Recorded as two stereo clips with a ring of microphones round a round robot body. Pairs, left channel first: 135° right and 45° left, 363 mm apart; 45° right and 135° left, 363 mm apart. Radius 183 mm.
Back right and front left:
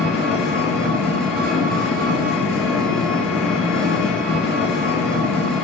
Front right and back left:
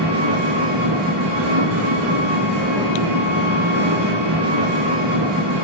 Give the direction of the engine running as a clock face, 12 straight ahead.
8 o'clock.